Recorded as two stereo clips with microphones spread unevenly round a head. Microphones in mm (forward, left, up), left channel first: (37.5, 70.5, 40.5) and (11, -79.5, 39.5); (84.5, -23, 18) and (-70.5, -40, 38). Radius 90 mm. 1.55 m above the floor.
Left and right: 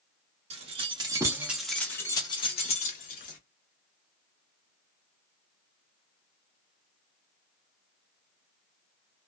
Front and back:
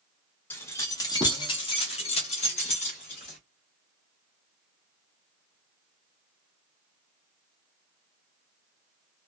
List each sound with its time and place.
0.5 s keys jangling: 70° right, 1.0 m; by 3.4 s 65° left, 1.2 m